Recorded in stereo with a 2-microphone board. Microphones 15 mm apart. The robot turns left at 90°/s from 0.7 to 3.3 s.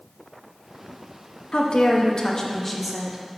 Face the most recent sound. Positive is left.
turn(degrees=-40)